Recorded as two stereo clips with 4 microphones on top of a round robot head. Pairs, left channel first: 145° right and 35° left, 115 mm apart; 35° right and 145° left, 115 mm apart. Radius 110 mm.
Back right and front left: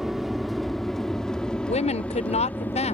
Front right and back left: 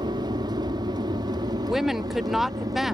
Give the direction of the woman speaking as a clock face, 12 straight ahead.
4 o'clock.